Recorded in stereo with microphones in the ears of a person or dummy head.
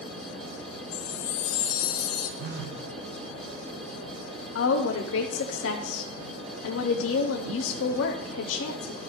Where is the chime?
65° left (ahead or behind), 1.7 m.